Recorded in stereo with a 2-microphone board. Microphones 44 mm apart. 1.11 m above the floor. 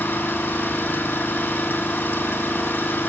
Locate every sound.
0.0 s an engine running: 50° left (ahead or behind), 5 m